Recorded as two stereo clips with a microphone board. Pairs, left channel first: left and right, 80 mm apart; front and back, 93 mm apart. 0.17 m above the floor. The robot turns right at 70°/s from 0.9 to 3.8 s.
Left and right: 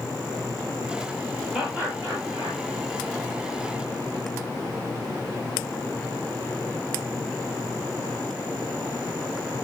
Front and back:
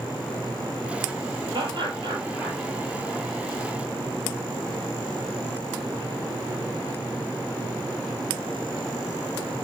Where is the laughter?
175° right, 3 m; by 2.6 s 100° right, 3 m.